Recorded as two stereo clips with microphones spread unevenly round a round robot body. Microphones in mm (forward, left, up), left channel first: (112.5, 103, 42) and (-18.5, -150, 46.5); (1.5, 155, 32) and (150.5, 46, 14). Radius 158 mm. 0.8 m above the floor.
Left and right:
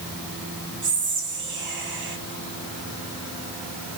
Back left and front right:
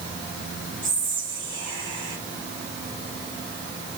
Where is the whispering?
170° right, 1.0 m.